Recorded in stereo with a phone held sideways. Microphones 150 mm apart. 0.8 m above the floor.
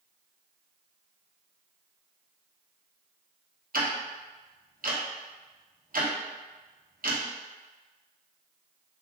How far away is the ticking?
About 0.8 m.